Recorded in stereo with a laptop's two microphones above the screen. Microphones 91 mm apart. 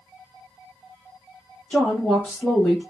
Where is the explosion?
I don't hear an explosion.